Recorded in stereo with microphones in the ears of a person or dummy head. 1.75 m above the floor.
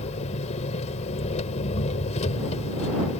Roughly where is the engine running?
Left.